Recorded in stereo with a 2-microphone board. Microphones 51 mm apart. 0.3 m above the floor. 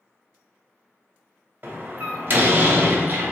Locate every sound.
1.6 s a door slam: 45° right (ahead or behind), 1.0 m